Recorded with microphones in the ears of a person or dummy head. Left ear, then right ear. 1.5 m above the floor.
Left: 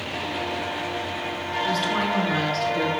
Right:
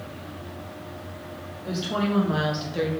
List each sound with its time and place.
1.6 s a woman speaking: 15° left (ahead or behind), 3.5 m; by 2.9 s 10° right (ahead or behind), 1.7 m